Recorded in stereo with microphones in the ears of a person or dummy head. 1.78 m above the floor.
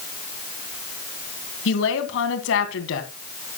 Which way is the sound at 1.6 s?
75° left (ahead or behind).